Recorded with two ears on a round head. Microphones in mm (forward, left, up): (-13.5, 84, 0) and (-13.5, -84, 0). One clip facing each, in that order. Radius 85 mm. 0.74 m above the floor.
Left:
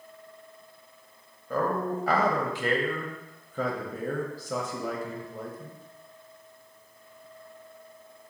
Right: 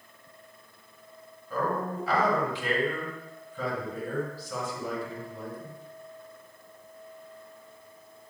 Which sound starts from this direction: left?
A man speaking, at 1.5 s.